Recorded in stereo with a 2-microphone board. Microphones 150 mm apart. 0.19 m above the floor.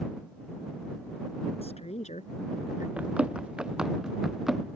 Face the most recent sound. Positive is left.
turn(degrees=0)  # may be behind; listen again after turning